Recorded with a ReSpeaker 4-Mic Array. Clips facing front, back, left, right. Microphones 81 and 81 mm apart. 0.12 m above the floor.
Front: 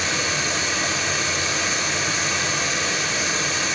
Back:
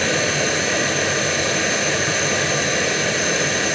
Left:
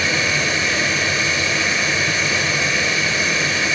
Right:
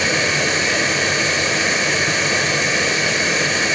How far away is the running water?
About 7.5 m.